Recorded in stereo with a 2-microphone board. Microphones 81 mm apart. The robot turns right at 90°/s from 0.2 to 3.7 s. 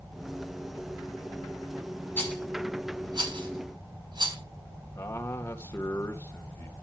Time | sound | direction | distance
2.2 | a rattle | 25° left (ahead or behind) | 5.5 m
5.0 | a man speaking | 30° left (ahead or behind) | 2 m